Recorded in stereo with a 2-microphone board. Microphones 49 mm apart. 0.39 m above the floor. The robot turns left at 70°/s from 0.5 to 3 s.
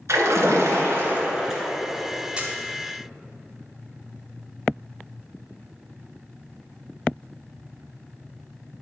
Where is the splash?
95° right, 1.6 m; by 1.7 s straight behind, 1.6 m.